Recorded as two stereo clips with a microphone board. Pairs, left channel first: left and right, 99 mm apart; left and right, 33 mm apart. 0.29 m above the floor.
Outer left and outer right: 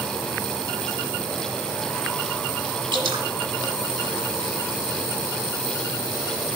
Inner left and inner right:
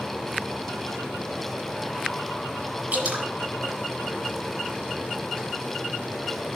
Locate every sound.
2.9 s dripping: 50° right (ahead or behind), 1.1 m